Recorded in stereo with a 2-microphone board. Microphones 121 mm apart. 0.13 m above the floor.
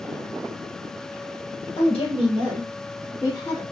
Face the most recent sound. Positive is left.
turn(degrees=35)  # may be behind; listen again after turning